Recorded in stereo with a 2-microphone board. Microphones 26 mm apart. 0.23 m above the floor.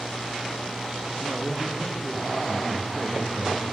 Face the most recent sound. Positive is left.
turn(degrees=-20)  # may be behind; listen again after turning